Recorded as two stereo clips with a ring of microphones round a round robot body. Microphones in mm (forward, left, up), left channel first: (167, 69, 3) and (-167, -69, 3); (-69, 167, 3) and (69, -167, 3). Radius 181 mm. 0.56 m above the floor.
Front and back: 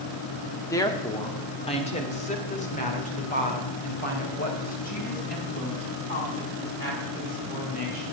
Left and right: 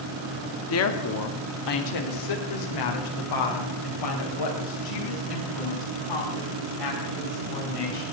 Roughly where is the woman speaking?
Left.